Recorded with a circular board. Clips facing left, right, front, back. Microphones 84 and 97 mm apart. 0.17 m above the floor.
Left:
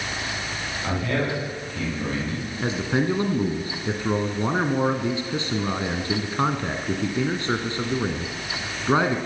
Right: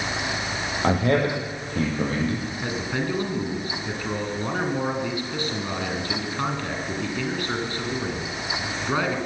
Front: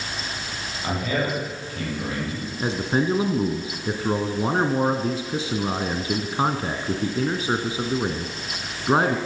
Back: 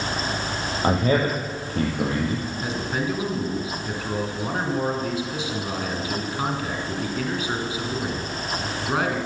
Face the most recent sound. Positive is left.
turn(degrees=35)